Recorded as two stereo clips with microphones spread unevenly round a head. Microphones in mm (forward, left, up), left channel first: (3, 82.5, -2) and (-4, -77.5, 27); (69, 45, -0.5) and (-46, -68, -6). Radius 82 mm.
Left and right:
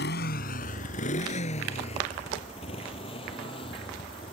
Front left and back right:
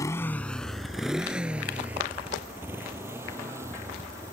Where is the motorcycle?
115° left; by 4.3 s 150° left.